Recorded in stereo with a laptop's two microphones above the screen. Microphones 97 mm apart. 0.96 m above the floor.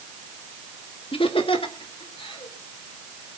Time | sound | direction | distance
1.1 | laughter | 70° left (ahead or behind) | 1.8 m